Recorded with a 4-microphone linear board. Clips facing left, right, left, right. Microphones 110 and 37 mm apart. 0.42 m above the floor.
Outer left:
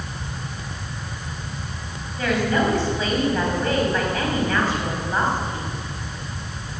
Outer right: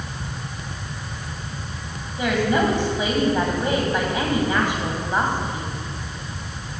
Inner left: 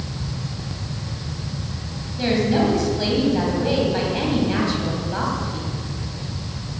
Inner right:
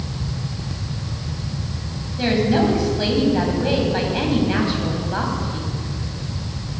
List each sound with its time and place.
2.2 s a woman speaking: 15° right (ahead or behind), 3 m